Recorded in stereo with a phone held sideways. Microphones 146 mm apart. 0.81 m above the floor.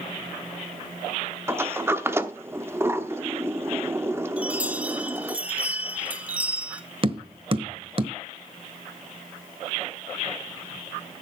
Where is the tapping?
40° right (ahead or behind), 1.1 m.